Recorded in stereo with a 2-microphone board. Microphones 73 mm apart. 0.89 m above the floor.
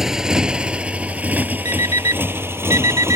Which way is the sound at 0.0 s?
5° right (ahead or behind).